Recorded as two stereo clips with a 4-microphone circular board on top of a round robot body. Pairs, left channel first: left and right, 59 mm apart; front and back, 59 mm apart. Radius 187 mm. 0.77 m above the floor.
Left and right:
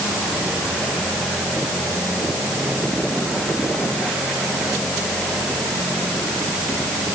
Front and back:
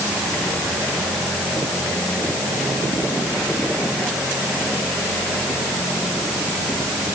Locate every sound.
Only background noise.